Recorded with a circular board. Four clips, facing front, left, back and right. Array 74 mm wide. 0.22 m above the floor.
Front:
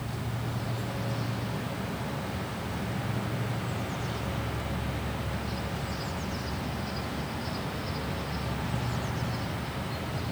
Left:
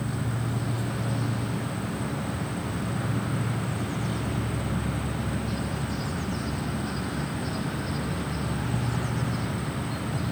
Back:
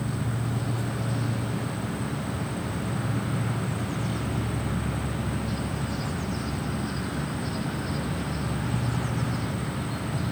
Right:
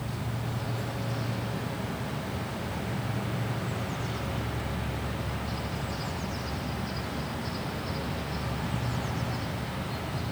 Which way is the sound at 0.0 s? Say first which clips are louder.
Left 4 dB, back 5 dB; 135° left.